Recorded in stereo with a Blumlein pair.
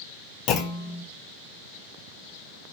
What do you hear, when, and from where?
0.5 s a clunk: 35° left, 0.6 m